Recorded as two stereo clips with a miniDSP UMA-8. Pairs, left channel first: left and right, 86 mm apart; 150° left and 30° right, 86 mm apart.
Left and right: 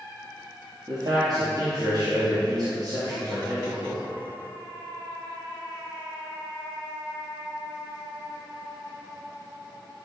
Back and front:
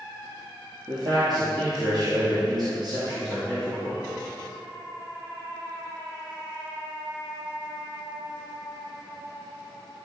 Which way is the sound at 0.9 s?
55° right.